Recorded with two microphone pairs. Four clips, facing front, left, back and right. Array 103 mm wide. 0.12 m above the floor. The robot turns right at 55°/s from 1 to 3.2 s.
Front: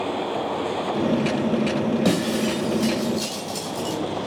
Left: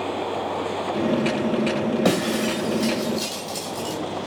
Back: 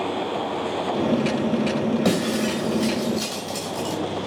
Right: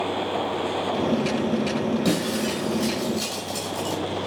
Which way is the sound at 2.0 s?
100° left.